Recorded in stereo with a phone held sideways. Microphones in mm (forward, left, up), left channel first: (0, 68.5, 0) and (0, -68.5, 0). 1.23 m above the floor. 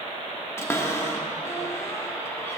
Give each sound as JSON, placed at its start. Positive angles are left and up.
{"t": 0.6, "sound": "a cupboard door", "side_deg": 20, "distance_m": 1.0}